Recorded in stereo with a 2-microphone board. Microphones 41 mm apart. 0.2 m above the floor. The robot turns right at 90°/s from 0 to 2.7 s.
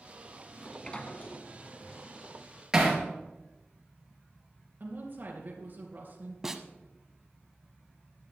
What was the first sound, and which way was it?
A sliding door, straight ahead.